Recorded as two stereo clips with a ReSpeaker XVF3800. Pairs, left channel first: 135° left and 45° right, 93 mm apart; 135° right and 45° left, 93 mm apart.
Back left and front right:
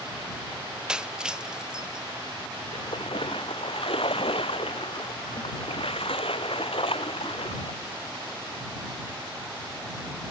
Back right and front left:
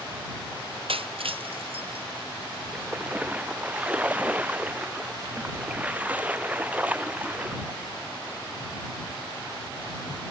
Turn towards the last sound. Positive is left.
turn(degrees=120)